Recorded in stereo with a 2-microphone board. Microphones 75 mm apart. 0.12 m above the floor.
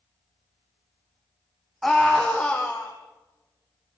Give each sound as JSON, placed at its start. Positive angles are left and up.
{"t": 1.8, "sound": "a scream", "side_deg": 5, "distance_m": 4.5}